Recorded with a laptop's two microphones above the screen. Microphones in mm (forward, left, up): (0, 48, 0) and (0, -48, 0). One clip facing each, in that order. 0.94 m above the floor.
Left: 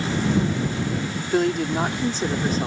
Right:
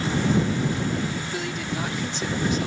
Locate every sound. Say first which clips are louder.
1.3 s a woman speaking: left 8 dB; 50° left (ahead or behind); by 2.7 s 40° left (ahead or behind)